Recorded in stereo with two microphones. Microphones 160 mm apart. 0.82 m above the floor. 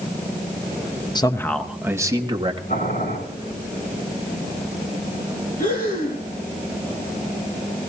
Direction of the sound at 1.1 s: 25° left (ahead or behind).